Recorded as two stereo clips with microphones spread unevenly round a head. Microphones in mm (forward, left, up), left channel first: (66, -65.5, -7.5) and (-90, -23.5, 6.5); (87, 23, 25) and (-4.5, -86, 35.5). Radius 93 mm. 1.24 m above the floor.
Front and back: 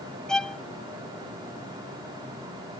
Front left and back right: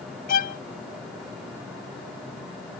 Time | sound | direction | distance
0.3 | a violin | 70° left | ?